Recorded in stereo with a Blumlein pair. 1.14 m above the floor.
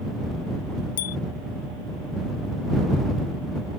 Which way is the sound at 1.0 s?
55° left.